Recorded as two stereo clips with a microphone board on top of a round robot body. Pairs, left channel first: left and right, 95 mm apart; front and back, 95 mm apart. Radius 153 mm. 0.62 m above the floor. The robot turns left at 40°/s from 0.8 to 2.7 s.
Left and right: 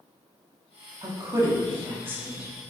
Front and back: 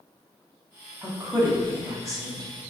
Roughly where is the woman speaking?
Right.